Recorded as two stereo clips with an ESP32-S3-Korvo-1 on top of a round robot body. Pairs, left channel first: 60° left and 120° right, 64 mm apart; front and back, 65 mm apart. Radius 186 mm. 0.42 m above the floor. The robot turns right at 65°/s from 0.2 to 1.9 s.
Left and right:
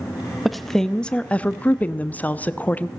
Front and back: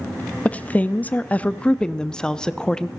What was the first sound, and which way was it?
A woman speaking, 35° right.